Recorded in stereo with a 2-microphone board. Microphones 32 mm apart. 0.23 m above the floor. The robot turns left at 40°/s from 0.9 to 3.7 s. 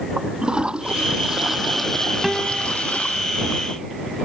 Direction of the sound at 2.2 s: 5° right (ahead or behind).